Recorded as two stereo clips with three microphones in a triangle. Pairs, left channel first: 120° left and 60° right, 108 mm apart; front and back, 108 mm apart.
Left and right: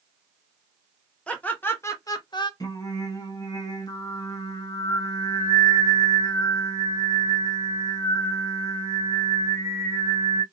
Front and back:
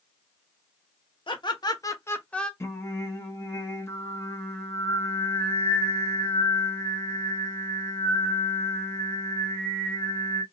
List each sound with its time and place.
1.3 s laughter: 40° left, 1.3 m; by 2.5 s 85° left, 0.8 m
2.6 s singing: 70° left, 1.0 m